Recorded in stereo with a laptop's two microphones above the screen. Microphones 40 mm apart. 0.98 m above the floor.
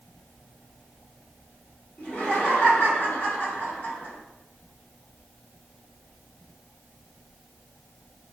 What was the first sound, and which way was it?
Laughter, 45° left (ahead or behind).